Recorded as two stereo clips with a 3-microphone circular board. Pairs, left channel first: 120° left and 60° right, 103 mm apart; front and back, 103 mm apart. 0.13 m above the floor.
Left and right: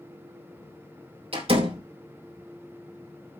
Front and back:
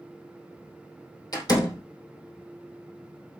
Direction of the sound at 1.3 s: 50° right.